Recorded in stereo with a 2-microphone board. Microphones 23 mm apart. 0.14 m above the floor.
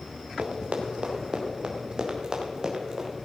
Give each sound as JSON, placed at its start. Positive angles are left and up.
{"t": 0.4, "sound": "running footsteps", "side_deg": -60, "distance_m": 2.5}